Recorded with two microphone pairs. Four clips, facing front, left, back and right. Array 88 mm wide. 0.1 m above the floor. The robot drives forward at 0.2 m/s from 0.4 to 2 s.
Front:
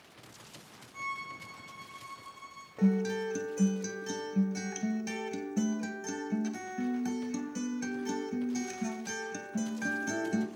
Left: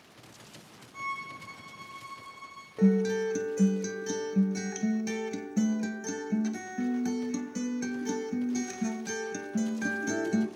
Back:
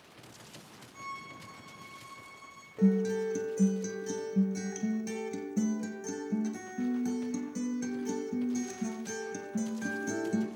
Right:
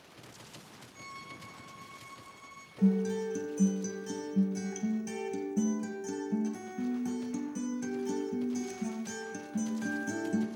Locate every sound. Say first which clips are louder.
0.9 s a violin: left 11 dB, front 4 dB; 65° left, 1.7 m; by 2.7 s 70° left, 1.6 m
2.8 s a guitar: left 4 dB, back 2 dB; 55° left, 0.9 m